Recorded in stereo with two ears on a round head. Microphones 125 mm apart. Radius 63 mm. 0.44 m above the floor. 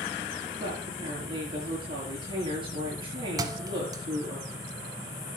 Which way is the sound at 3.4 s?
25° right (ahead or behind).